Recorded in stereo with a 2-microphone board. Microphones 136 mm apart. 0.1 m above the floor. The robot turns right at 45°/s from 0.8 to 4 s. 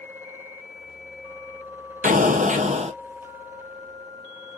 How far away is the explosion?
About 0.7 m.